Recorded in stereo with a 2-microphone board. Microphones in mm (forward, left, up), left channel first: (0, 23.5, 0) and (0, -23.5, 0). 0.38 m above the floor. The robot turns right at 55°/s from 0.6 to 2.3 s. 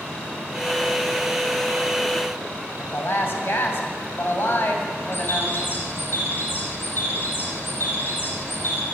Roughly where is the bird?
Left.